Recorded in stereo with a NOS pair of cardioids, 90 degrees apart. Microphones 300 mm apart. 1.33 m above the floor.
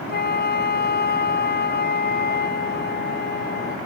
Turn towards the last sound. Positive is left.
turn(degrees=35)